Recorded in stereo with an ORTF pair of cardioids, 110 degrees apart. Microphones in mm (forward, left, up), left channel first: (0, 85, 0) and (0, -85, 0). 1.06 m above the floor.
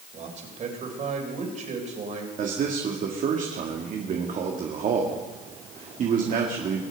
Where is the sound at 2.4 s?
50° right, 1.8 m.